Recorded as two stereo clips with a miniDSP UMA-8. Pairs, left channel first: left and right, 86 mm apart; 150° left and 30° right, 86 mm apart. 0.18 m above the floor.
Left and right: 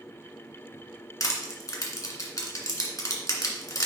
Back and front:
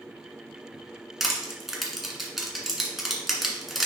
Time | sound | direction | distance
1.2 | crushing | 55° left | 1.5 m